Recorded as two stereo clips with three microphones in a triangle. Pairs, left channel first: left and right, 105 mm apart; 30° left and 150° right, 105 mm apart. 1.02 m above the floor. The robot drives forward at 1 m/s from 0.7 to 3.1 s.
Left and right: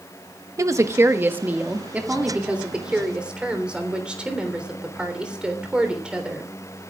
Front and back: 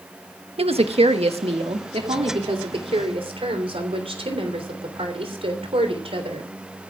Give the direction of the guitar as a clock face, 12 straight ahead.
I don't hear a guitar.